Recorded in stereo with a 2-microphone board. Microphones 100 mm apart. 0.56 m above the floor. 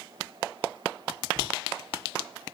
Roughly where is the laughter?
Left.